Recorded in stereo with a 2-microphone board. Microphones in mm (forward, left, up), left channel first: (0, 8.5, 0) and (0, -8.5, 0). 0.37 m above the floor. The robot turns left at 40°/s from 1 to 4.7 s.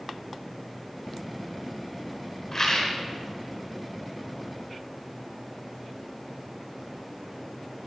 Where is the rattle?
20° left (ahead or behind), 4.5 m; by 2.9 s 35° left (ahead or behind), 4.5 m.